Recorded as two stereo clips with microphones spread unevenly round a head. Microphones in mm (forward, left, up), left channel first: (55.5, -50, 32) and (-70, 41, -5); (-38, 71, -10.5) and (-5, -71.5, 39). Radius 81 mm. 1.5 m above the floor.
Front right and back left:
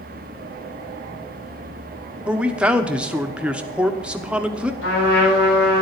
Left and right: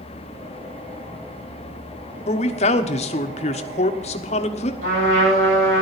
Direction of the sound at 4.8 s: 45° right.